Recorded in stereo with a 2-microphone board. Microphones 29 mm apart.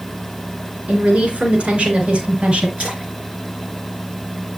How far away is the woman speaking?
About 3 m.